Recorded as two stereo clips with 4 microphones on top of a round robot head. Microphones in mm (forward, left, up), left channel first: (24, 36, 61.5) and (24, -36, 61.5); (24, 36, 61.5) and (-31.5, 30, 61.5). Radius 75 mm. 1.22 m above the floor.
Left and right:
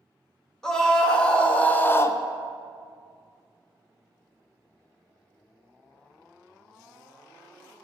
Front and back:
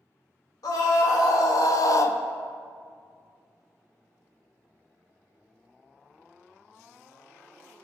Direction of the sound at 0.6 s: 10° left.